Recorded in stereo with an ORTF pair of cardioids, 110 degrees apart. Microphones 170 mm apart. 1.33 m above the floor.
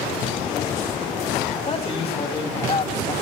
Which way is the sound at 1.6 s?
30° left.